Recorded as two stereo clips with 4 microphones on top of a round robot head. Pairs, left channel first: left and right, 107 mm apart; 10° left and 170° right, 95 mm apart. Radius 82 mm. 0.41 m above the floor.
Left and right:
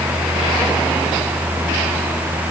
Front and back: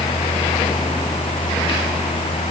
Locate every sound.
Only background noise.